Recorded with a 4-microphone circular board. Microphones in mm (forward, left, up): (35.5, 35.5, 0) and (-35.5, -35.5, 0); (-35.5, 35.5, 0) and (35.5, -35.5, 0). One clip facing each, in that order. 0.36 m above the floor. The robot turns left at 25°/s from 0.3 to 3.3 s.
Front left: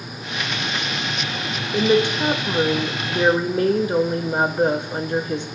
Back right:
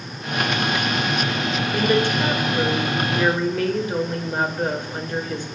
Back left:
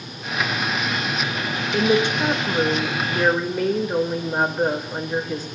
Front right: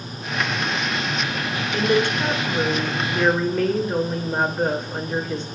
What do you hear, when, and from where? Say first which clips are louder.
1.7 s a woman speaking: front left 3 dB, back left 1 dB; 95° left, 1.0 m; by 5.5 s 55° left, 1.0 m